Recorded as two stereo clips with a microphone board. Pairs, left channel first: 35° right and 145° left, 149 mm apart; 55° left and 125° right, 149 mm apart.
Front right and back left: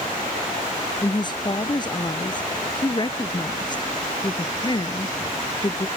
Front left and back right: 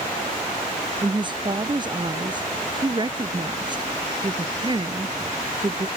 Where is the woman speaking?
80° right.